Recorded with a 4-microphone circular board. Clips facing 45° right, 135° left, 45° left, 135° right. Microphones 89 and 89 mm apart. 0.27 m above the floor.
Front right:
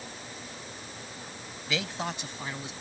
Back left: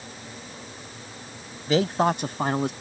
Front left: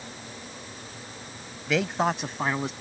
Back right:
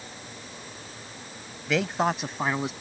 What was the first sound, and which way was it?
A man speaking, 135° left.